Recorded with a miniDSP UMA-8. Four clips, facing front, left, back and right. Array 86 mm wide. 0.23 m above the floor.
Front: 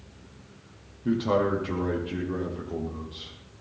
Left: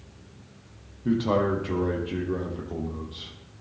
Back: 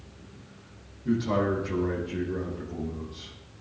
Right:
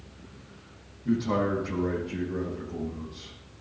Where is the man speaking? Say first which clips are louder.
Left 3 dB, front 2 dB; 55° left, 6.5 m.